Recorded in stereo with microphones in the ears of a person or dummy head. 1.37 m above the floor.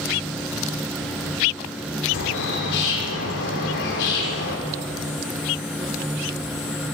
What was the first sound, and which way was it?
A bird, 60° left (ahead or behind).